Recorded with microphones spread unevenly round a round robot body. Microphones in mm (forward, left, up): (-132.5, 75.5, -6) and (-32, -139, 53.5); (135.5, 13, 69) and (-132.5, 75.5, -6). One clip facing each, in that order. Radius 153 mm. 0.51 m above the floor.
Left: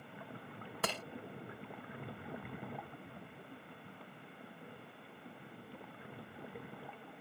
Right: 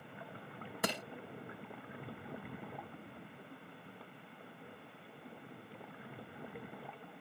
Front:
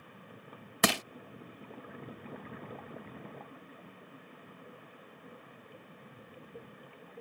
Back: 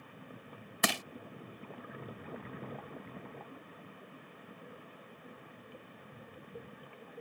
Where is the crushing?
15° left.